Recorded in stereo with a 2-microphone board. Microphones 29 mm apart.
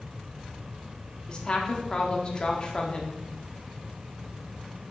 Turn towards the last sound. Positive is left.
turn(degrees=30)  # may be behind; listen again after turning